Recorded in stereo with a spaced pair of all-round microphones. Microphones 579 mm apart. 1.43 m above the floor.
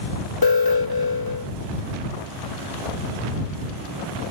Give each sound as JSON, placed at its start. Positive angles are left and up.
{"t": 0.4, "sound": "an alarm", "side_deg": 35}